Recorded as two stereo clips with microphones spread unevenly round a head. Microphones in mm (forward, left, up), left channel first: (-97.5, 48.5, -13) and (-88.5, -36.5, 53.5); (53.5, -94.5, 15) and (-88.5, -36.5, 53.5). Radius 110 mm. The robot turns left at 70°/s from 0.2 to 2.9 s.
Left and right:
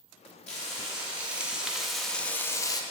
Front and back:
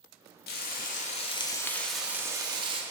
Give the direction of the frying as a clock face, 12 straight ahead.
1 o'clock.